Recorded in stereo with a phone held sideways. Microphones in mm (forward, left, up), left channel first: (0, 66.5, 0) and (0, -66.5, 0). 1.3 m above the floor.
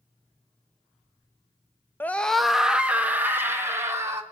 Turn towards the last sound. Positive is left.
turn(degrees=-20)  # may be behind; listen again after turning